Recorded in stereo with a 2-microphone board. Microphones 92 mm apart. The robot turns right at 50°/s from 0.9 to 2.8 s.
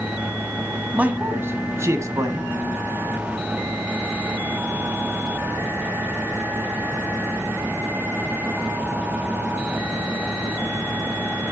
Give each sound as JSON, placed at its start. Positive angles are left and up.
{"t": 0.9, "sound": "a man speaking", "azimuth_deg": -150, "distance_m": 1.5}